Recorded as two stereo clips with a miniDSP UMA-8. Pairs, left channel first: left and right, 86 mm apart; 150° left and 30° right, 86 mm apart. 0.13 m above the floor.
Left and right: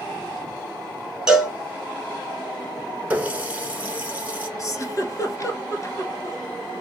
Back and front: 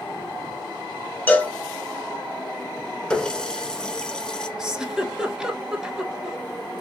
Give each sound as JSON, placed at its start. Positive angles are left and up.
{"t": 1.3, "sound": "a cowbell", "azimuth_deg": -165, "distance_m": 1.1}
{"t": 3.1, "sound": "a running tap", "azimuth_deg": -140, "distance_m": 0.9}
{"t": 4.6, "sound": "a giggle", "azimuth_deg": 50, "distance_m": 0.9}